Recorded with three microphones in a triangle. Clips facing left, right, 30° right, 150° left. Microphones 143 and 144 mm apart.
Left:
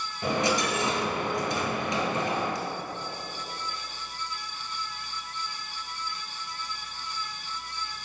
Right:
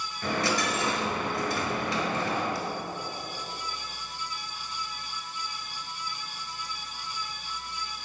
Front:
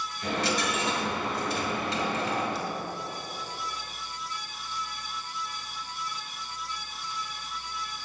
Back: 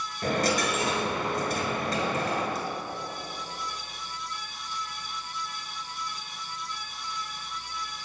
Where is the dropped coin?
155° left, 1.0 m.